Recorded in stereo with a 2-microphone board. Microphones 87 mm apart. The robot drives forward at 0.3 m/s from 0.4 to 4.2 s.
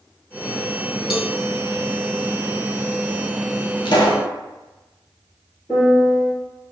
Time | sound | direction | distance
1.1 | a cowbell | 5° right (ahead or behind) | 0.8 m
3.9 | a pop | 60° left (ahead or behind) | 1.4 m
5.7 | a piano | 5° left (ahead or behind) | 1.7 m